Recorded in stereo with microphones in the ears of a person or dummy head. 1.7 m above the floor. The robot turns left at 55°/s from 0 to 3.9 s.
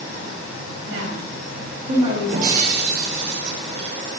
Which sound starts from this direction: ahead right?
Breaking glass, at 2.3 s.